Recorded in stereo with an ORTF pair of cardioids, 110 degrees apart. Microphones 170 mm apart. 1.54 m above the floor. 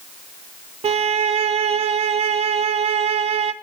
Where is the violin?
40° right, 0.7 m.